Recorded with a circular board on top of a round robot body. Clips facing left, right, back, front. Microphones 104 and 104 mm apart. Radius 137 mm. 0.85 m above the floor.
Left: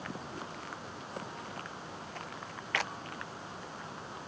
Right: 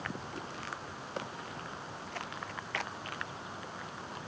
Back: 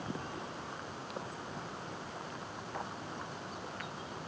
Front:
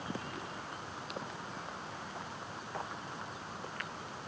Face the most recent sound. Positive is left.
No sound to turn to.